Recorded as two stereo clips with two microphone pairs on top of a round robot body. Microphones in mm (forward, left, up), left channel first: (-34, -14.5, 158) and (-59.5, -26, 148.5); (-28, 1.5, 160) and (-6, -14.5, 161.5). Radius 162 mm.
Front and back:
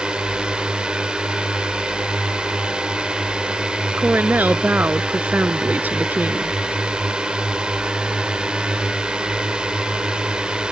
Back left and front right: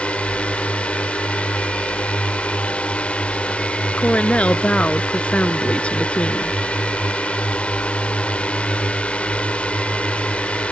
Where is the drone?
170° left.